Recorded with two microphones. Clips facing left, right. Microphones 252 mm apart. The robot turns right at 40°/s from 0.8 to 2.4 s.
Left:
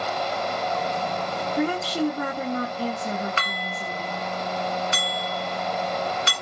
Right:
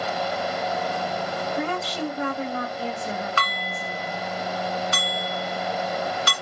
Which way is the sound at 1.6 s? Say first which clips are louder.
Left 7 dB; 40° left.